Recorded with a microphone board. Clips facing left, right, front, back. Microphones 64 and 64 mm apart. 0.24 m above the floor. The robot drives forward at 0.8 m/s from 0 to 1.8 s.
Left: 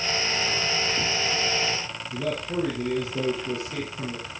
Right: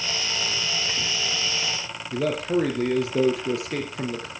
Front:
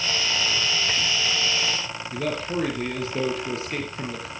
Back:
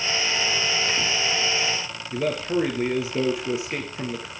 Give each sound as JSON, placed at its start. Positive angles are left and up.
{"t": 2.1, "sound": "a man speaking", "azimuth_deg": -105, "distance_m": 4.0}